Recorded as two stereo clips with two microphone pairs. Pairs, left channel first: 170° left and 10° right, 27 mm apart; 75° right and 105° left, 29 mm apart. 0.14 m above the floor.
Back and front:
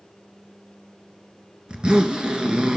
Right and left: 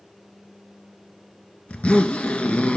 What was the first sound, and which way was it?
A zipper, 60° right.